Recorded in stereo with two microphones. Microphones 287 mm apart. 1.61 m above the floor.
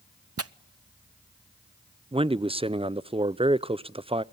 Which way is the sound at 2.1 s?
20° right (ahead or behind).